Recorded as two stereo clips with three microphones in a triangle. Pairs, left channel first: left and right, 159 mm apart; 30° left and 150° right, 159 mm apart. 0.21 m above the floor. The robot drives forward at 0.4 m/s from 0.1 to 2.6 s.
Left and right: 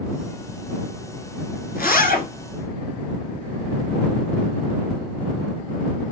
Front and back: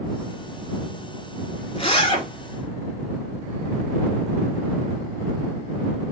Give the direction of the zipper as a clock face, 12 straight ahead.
9 o'clock.